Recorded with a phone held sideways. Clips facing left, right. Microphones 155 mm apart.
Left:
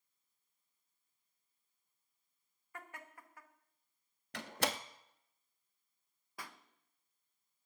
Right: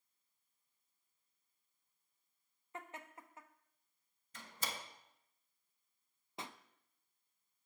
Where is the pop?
25° right (ahead or behind), 0.6 m.